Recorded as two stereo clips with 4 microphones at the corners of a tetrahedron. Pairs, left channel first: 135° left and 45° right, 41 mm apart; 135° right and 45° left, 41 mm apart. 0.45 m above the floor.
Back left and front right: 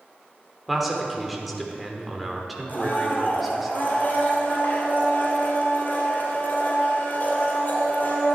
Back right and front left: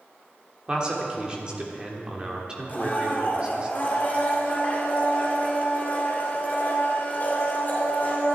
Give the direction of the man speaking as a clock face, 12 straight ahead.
11 o'clock.